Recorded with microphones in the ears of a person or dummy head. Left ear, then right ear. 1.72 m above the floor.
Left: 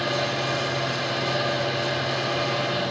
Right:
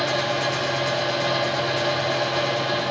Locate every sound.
0.0 s a fan: 50° right (ahead or behind), 1.8 m